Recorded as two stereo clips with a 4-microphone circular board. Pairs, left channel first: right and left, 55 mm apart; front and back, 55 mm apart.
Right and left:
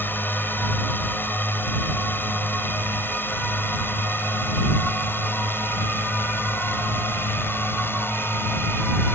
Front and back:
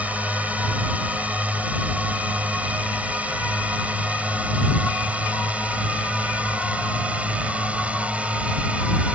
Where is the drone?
130° right; by 9.2 s 120° right.